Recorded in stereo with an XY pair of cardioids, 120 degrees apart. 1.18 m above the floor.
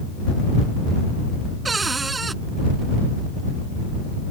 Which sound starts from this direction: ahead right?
A cupboard door, at 1.6 s.